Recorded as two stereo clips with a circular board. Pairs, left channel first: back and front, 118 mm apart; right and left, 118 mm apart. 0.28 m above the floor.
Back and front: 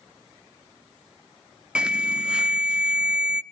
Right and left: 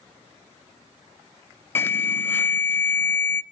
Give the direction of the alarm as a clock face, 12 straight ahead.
2 o'clock.